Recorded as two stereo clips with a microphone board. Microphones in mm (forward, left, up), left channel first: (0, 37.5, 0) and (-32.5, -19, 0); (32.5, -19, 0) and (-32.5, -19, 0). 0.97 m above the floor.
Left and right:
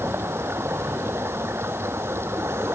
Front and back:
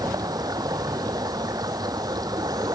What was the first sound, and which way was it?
Running water, 170° right.